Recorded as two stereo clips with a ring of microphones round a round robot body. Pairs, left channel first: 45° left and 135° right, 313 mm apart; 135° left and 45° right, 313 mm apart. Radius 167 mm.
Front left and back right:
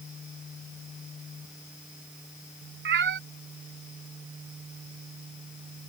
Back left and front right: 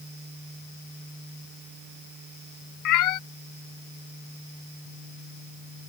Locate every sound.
2.9 s a cat meowing: 170° left